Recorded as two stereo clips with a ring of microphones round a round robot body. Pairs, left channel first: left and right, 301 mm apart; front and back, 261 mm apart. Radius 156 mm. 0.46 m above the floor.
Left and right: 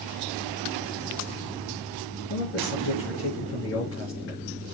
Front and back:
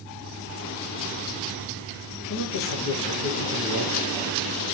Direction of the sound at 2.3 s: 40° left.